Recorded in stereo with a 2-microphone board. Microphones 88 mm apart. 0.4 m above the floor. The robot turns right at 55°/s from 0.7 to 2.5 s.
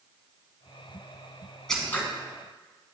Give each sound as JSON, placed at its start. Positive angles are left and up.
{"t": 1.7, "sound": "scissors", "side_deg": 5, "distance_m": 1.1}